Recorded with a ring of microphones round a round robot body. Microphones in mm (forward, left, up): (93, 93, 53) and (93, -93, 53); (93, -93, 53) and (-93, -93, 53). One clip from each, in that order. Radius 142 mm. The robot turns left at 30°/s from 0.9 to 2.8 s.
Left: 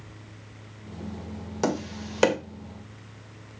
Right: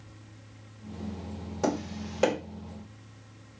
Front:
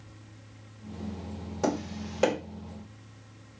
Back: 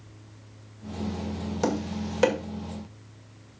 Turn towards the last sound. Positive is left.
turn(degrees=95)